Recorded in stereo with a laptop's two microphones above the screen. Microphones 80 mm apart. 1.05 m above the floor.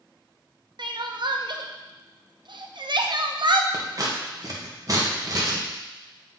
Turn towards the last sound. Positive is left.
turn(degrees=-45)  # may be behind; listen again after turning